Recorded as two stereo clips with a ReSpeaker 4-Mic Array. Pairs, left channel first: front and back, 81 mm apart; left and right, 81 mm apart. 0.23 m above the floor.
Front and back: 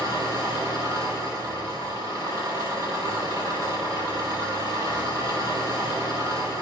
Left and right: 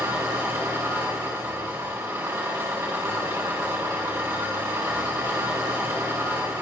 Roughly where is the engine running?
Behind right.